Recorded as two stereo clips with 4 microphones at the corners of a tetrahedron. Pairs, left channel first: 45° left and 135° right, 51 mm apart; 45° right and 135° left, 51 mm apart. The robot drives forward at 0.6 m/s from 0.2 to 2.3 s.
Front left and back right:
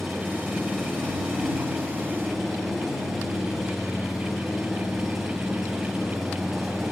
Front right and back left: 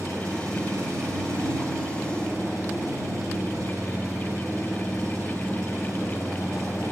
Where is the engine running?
130° left, 7 m; by 6.9 s 135° left, 8 m.